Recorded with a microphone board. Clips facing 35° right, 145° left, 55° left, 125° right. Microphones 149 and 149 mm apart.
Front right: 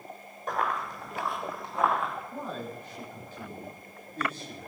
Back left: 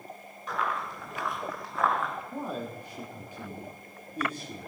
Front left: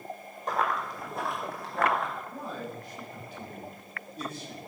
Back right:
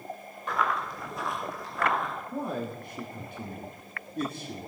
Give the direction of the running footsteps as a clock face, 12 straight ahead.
12 o'clock.